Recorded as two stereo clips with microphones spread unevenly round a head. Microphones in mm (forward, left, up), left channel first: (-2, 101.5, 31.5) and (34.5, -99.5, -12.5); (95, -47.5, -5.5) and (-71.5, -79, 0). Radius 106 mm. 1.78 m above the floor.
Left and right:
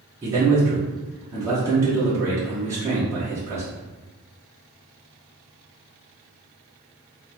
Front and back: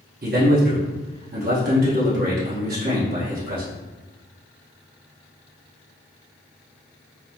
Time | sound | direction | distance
0.2 | a man speaking | 165° right | 0.9 m